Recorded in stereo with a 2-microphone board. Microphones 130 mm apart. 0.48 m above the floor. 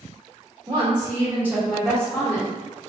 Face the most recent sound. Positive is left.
turn(degrees=20)  # may be behind; listen again after turning